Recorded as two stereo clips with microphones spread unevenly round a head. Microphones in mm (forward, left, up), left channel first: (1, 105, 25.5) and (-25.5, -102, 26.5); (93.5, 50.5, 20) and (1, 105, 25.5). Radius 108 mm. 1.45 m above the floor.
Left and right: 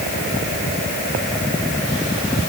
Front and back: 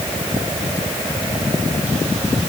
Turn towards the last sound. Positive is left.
No sound to turn to.